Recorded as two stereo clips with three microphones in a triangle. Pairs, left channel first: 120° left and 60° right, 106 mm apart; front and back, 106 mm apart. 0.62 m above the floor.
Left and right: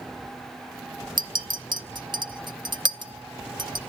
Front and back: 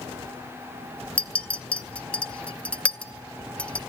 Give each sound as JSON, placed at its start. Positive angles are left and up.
{"t": 1.2, "sound": "a clink", "azimuth_deg": -75, "distance_m": 0.8}